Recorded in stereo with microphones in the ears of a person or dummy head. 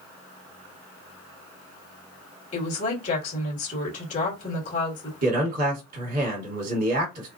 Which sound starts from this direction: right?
A man speaking, at 5.2 s.